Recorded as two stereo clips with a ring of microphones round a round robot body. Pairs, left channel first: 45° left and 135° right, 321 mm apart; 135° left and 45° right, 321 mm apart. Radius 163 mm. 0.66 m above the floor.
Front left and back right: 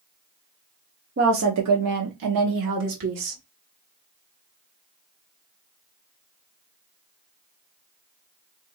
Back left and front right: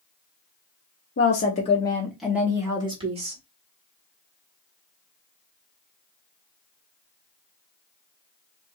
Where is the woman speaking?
175° left, 0.9 m; by 3.4 s 115° right, 1.9 m.